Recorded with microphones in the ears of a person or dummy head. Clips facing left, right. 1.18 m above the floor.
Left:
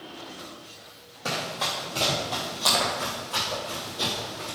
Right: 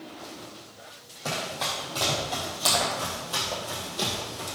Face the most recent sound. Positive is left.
turn(degrees=-40)  # may be behind; listen again after turning